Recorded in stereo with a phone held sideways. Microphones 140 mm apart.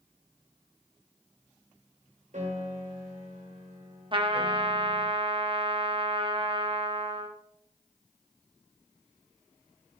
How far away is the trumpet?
About 1.2 m.